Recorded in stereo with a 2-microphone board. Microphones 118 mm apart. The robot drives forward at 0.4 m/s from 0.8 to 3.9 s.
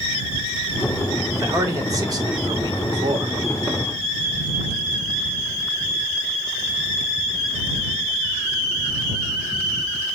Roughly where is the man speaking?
Right.